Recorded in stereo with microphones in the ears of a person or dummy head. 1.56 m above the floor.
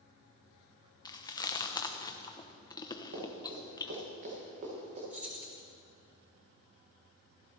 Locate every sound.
1.1 s chewing: 25° left (ahead or behind), 1.0 m
3.1 s running footsteps: 60° right (ahead or behind), 6.5 m; by 5.0 s 35° right (ahead or behind), 6.5 m
5.1 s keys jangling: 10° right (ahead or behind), 3 m